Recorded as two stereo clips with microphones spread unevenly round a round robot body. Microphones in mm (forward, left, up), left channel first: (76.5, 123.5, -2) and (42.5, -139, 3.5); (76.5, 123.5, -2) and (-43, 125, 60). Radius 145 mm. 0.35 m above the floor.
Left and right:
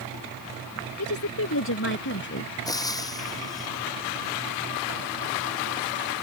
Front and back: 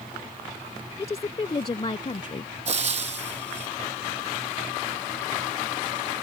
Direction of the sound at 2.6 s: 160° left.